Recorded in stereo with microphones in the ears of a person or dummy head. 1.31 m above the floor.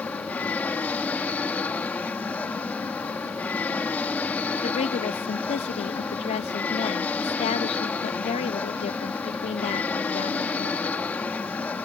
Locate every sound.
0.0 s an aircraft: 5° left (ahead or behind)
4.6 s a woman speaking: 30° left (ahead or behind)